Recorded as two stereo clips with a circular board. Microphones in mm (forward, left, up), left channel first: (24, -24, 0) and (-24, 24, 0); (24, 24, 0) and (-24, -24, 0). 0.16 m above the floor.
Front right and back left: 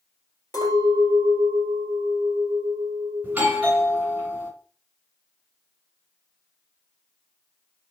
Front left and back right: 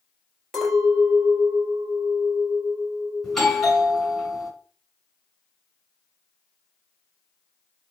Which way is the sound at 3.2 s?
120° left.